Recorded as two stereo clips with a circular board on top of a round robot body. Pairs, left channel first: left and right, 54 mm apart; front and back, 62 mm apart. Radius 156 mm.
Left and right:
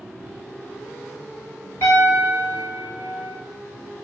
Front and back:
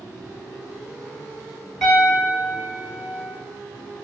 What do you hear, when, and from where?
1.8 s a piano: 95° left, 1.8 m